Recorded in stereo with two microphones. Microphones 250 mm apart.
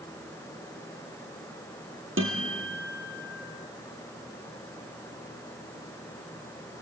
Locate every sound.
2.2 s a guitar: 55° right (ahead or behind), 3 m